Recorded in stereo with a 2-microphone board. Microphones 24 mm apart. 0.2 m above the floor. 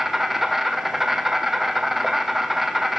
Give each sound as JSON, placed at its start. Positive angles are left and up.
{"t": 0.0, "sound": "an insect", "side_deg": -10, "distance_m": 1.8}